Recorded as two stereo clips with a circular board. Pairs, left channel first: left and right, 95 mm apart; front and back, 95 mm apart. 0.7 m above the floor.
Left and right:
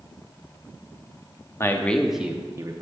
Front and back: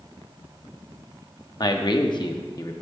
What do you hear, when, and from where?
1.6 s a man speaking: 35° left, 0.8 m; by 2.8 s 50° right, 0.9 m